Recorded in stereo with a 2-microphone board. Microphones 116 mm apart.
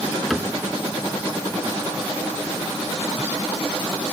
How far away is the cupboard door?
About 1.8 m.